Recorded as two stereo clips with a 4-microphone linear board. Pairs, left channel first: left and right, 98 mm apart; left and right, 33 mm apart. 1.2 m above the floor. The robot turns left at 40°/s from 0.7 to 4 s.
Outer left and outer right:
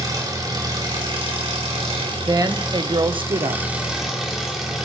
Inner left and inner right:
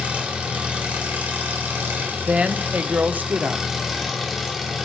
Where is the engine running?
45° right, 2.5 m; by 4.9 s 175° right, 2.5 m.